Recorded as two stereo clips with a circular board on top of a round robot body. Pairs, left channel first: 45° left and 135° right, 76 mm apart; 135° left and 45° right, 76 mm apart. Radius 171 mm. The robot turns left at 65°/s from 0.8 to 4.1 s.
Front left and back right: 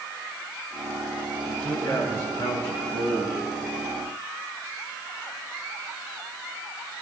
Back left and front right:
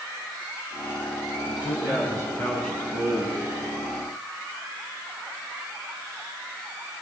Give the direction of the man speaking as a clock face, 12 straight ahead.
8 o'clock.